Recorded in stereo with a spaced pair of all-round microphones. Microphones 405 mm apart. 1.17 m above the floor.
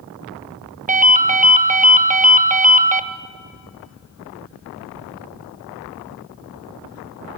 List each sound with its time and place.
0.9 s a ringtone: 20° right (ahead or behind), 0.7 m